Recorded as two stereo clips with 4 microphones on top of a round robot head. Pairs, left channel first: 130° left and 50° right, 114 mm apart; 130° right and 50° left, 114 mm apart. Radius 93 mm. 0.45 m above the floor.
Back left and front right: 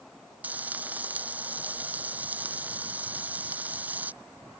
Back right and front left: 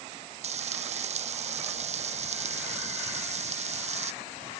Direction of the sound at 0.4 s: 25° left.